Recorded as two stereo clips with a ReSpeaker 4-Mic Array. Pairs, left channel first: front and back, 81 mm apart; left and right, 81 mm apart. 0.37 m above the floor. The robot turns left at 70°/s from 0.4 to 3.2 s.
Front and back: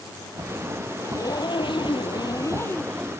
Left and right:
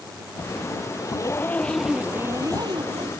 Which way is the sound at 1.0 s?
55° left.